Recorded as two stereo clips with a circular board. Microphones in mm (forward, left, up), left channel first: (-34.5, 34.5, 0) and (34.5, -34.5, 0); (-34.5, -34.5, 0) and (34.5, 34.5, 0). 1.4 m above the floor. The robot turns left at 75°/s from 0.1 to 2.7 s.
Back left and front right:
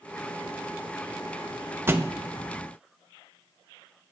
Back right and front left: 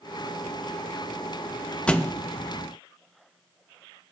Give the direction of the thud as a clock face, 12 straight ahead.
2 o'clock.